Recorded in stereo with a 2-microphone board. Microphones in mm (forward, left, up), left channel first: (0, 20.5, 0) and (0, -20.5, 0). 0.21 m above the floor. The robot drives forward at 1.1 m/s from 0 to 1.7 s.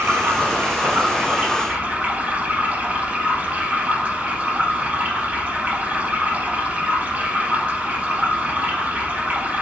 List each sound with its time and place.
0.0 s running water: 60° right (ahead or behind), 3 m; by 9.6 s 40° right (ahead or behind), 4.5 m